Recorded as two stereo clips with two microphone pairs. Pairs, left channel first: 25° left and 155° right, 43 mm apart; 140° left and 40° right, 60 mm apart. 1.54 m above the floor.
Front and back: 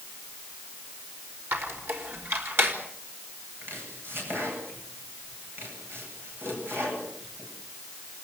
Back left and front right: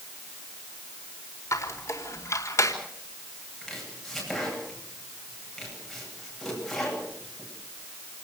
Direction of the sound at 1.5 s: 175° left.